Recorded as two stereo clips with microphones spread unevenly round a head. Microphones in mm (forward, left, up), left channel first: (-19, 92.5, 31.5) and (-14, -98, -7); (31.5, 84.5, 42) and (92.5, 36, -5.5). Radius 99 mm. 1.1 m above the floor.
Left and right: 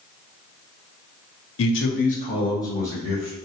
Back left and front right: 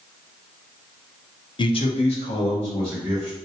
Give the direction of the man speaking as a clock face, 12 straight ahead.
9 o'clock.